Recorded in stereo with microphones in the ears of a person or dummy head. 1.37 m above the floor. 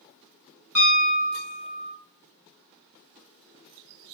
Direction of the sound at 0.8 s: 5° right (ahead or behind).